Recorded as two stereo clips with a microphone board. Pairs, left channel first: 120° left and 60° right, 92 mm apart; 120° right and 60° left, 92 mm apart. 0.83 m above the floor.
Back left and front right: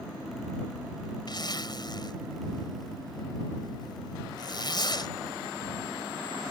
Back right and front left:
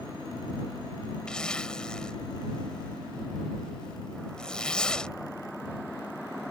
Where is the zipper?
160° left.